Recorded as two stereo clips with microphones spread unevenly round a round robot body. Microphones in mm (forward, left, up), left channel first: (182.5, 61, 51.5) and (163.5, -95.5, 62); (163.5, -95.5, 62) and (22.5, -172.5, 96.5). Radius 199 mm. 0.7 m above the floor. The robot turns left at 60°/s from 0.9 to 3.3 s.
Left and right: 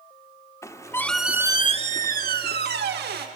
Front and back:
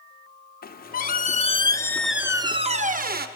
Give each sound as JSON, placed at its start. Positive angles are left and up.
{"t": 0.6, "sound": "a squeak", "azimuth_deg": 10, "distance_m": 1.1}